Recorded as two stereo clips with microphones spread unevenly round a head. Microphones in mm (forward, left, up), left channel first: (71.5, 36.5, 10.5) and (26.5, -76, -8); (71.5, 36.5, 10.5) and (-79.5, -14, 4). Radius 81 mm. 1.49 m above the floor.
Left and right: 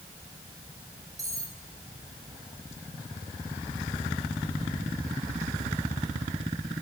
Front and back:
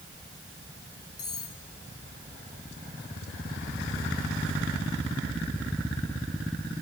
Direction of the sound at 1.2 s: 50° right.